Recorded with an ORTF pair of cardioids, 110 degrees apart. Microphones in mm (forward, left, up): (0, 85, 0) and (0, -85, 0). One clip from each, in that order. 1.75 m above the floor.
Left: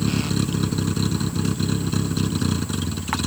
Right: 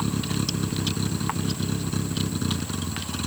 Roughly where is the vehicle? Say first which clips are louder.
Left 3 dB; ahead left.